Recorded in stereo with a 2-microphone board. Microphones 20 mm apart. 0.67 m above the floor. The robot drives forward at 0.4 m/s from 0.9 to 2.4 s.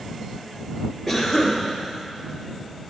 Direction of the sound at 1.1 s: 5° left (ahead or behind).